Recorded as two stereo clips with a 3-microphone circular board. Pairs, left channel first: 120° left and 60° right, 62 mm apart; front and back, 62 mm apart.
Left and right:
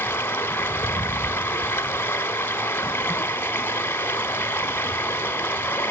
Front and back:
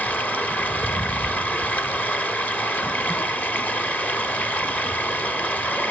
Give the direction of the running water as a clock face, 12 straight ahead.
10 o'clock.